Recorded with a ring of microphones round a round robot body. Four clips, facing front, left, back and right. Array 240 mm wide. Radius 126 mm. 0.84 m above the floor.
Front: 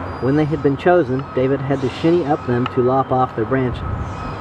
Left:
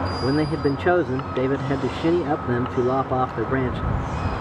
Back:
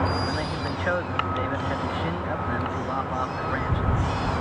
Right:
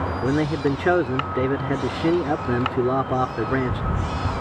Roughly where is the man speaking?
Ahead.